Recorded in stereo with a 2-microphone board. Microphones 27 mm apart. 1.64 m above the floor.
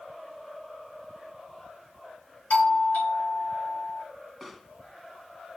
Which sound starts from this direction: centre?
A pop, at 4.4 s.